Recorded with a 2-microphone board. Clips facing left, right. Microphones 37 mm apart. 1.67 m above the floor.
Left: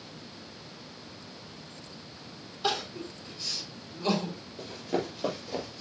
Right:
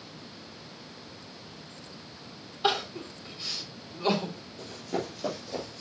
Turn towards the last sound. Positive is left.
turn(degrees=10)  # may be behind; listen again after turning